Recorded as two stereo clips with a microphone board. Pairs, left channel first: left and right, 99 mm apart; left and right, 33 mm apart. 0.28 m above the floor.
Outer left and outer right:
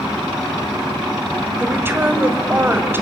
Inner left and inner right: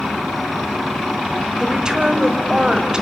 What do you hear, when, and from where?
1.6 s a woman speaking: 20° right (ahead or behind), 1.7 m